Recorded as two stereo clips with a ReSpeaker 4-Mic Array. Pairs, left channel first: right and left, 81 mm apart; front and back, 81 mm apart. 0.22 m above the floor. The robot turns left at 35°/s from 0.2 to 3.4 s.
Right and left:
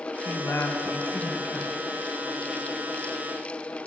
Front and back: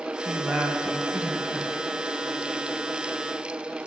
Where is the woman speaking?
75° right, 1.1 m; by 1.7 s 130° right, 1.1 m.